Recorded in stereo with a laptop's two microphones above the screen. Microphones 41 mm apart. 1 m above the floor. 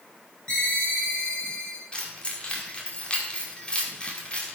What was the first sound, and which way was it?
A ringtone, 20° left (ahead or behind).